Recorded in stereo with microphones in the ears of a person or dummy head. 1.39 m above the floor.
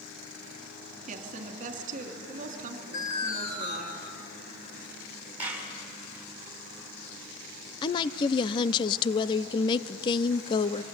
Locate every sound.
1.1 s a woman speaking: 40° right (ahead or behind), 3 m
2.9 s an alarm: 45° left (ahead or behind), 5 m
5.4 s a clap: 10° right (ahead or behind), 6.5 m
7.8 s a woman speaking: 30° left (ahead or behind), 0.7 m